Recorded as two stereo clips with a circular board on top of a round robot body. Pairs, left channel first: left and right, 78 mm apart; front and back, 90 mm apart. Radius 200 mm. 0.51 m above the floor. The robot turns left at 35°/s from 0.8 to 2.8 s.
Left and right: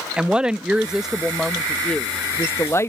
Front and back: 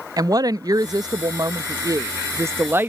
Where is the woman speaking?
165° right; by 2.9 s 125° left.